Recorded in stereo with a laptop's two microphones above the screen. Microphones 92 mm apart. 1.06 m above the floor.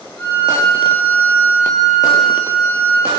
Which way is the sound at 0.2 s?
15° left (ahead or behind).